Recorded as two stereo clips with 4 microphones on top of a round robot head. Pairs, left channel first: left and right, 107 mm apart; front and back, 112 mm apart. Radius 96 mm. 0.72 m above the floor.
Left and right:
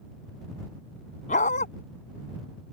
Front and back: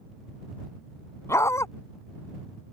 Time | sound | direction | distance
1.3 | a dog barking | 65° left | ?